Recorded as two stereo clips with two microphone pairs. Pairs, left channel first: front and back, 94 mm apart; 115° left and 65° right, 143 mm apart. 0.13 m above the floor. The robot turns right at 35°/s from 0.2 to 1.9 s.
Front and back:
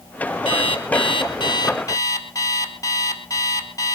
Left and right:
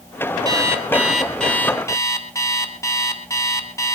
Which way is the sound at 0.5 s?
Straight ahead.